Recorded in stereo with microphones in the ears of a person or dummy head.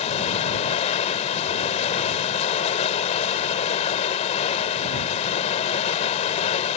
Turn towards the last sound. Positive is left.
turn(degrees=40)  # may be behind; listen again after turning